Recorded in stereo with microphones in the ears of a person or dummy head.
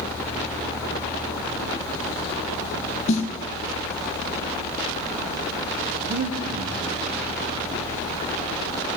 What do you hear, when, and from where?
3.1 s a snare drum: 40° left (ahead or behind), 1.5 m
6.1 s breathing: 50° right (ahead or behind), 1.8 m